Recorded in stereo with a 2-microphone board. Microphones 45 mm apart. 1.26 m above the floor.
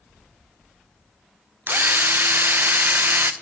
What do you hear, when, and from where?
1.7 s a drill: 55° right (ahead or behind), 0.6 m